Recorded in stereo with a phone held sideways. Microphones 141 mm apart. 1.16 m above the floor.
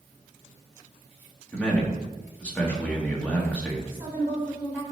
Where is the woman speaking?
20° right (ahead or behind), 3.5 m.